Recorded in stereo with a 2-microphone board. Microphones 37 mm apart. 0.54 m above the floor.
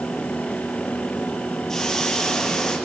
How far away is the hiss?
About 4.5 m.